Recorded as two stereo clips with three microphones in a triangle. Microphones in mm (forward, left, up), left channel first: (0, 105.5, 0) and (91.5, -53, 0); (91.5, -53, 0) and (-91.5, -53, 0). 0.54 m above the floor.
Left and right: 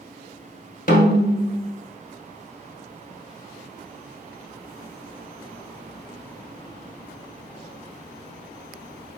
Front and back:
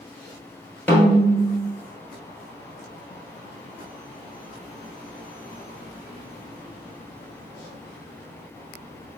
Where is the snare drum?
80° left, 1.5 m.